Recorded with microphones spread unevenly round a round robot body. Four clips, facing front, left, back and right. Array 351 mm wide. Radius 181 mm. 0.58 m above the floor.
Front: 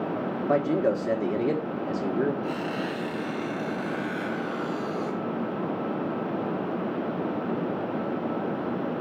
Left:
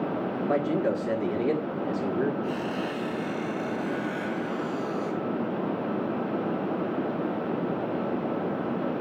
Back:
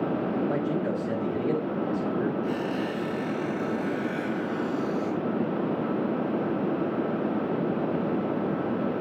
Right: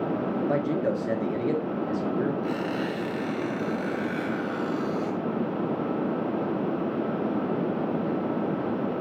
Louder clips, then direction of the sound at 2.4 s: Right 2 dB, back 1 dB; 75° right.